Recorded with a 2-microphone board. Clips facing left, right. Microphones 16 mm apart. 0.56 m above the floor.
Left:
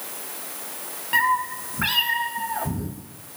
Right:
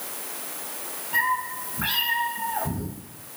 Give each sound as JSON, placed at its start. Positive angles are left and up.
{"t": 1.1, "sound": "a cat meowing", "side_deg": 60, "distance_m": 1.8}